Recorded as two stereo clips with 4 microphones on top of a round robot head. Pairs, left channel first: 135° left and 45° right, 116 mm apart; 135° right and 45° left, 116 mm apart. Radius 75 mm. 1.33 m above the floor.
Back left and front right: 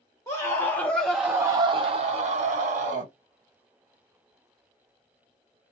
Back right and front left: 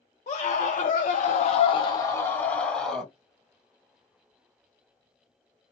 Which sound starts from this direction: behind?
A scream, at 0.3 s.